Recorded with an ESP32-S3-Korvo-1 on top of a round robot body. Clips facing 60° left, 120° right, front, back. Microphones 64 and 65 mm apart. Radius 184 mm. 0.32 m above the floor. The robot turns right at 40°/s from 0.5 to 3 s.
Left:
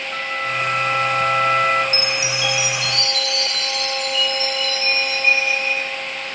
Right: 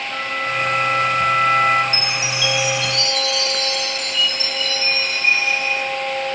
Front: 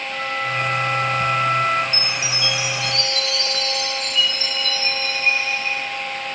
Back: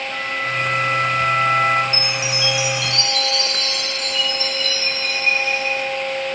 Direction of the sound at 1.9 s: 120° left.